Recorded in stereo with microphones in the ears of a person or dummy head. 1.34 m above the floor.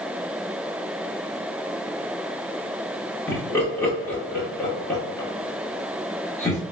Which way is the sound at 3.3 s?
10° left (ahead or behind).